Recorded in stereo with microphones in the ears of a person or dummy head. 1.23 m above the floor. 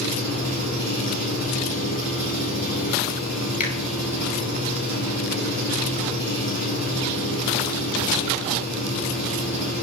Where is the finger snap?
40° left (ahead or behind), 3.5 m.